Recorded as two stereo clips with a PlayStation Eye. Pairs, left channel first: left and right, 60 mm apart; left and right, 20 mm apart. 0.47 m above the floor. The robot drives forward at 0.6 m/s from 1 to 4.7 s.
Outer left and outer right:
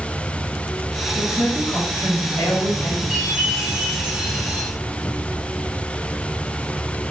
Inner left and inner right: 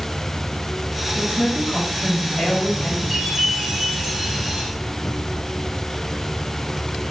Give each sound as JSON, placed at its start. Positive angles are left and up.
{"t": 1.1, "sound": "a woman speaking", "side_deg": 50, "distance_m": 3.0}
{"t": 3.1, "sound": "a chime", "side_deg": -5, "distance_m": 5.5}